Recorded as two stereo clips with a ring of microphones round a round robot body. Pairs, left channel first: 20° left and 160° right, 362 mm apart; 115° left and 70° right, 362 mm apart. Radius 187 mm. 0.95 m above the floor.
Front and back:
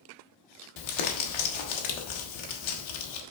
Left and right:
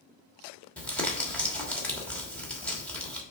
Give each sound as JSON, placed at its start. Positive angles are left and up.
{"t": 0.8, "sound": "crumpling", "azimuth_deg": 25, "distance_m": 1.4}